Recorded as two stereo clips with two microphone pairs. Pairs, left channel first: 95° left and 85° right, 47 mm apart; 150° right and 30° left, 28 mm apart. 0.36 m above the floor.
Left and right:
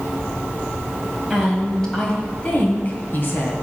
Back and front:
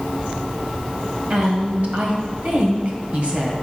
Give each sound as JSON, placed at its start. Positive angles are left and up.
{"t": 1.3, "sound": "a woman speaking", "azimuth_deg": 10, "distance_m": 1.8}